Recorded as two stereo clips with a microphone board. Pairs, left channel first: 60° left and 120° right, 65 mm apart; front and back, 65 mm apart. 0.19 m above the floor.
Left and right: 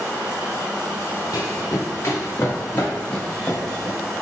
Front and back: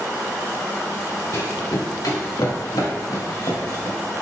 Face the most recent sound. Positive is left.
turn(degrees=-15)